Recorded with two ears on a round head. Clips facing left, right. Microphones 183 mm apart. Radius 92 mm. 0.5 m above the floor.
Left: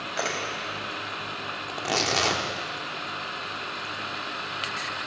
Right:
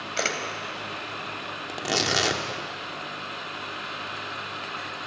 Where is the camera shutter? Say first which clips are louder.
Right 1 dB; 35° right (ahead or behind), 2.5 m.